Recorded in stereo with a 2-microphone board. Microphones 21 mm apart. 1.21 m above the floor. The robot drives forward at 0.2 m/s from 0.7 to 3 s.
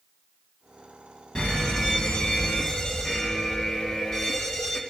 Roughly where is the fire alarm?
Left.